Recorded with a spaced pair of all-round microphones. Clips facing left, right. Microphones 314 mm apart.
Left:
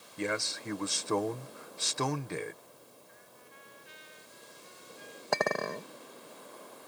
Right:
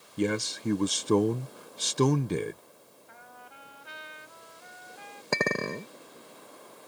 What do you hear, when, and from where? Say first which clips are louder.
0.2 s a man speaking: right 7 dB; 40° right (ahead or behind)
3.1 s a trumpet: right 4 dB; 80° right
5.3 s a clink: right 2 dB; 30° right (ahead or behind)